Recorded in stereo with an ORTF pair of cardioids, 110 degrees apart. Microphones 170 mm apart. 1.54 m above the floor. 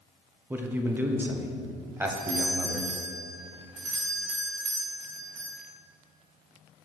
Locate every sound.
0.5 s a man speaking: 15° right, 0.7 m
2.1 s a doorbell: 45° right, 1.9 m